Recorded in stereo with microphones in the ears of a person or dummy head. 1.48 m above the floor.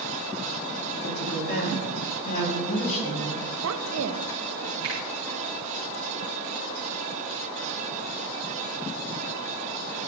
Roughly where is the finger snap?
Right.